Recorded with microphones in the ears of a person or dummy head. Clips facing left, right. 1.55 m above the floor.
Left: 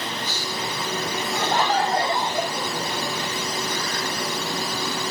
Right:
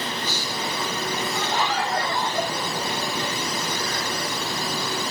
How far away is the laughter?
About 0.8 m.